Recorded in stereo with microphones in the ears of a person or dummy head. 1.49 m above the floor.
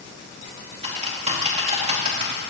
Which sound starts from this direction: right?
Typing on a keyboard, at 0.8 s.